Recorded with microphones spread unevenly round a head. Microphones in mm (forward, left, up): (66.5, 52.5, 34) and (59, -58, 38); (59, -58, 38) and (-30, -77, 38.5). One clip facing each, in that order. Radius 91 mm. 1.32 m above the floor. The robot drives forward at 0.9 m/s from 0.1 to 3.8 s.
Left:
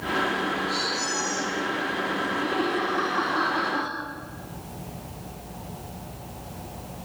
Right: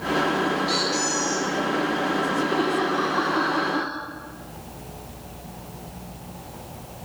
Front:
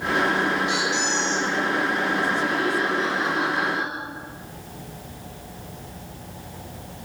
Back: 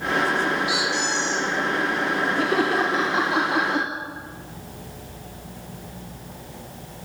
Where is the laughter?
165° right, 2.5 m; by 3.9 s 170° right, 3.5 m.